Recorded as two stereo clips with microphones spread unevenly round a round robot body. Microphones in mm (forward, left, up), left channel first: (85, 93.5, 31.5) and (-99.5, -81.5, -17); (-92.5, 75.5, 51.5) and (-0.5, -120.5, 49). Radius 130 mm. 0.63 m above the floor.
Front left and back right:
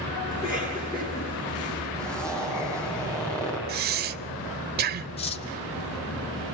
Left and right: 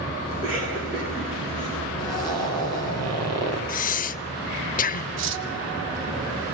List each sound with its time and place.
0.3 s a cough: 30° right, 9.5 m
2.0 s a zipper: 55° right, 9.5 m
3.7 s breathing: 165° left, 0.6 m
5.2 s cutlery clinking: 25° right, 1.1 m